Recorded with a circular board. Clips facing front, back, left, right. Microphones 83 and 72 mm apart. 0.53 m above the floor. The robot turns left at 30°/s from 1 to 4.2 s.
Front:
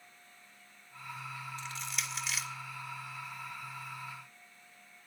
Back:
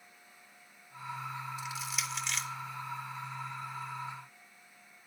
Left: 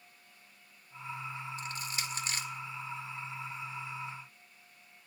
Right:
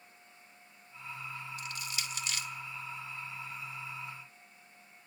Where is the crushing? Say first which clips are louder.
Back 3 dB, left 2 dB; 105° left, 1.3 m; by 2.5 s 80° left, 1.3 m.